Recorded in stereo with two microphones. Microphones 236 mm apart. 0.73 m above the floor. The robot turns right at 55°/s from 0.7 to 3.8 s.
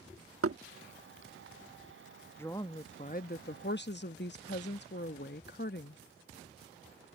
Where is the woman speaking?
15° left; by 6.0 s 90° left.